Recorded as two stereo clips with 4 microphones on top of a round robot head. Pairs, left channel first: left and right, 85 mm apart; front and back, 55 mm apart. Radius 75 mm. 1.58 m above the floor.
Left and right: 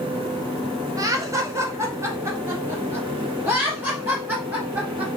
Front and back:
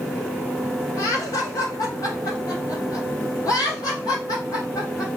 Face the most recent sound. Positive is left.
turn(degrees=-25)